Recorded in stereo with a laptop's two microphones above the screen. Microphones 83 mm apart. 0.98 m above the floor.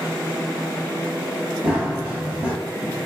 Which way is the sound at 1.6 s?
15° right (ahead or behind).